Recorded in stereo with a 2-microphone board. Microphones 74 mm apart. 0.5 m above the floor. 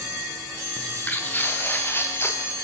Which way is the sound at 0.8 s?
20° left (ahead or behind).